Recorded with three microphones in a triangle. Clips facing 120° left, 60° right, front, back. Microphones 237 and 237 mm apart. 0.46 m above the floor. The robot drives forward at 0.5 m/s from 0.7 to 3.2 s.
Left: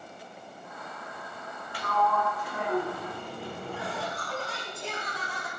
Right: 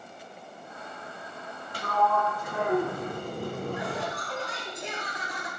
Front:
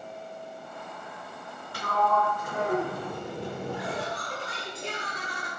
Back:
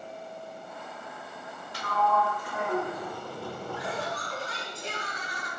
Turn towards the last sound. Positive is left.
turn(degrees=10)